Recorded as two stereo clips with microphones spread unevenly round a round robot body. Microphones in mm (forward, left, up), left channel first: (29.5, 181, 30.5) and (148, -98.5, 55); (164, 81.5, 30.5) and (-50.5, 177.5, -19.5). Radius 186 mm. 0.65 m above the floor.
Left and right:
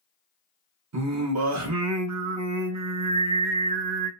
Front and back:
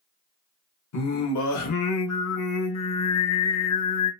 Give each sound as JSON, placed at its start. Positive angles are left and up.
{"t": 0.9, "sound": "singing", "azimuth_deg": -25, "distance_m": 0.7}